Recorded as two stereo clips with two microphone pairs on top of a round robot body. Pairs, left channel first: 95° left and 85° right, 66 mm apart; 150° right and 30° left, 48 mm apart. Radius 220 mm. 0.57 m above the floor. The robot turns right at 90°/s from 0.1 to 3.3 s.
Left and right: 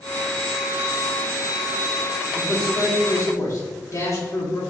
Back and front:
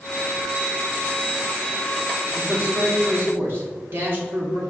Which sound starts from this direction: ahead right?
A man speaking, at 2.4 s.